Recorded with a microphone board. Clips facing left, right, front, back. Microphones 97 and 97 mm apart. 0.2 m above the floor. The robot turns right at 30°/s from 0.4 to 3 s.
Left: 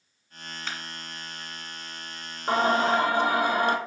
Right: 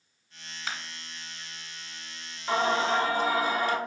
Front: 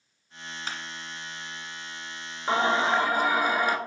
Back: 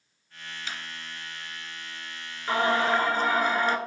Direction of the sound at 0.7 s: 10° right.